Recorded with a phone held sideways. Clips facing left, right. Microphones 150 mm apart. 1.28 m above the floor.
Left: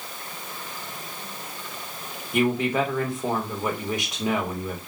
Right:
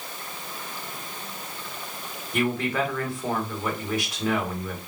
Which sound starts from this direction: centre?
A man speaking, at 2.3 s.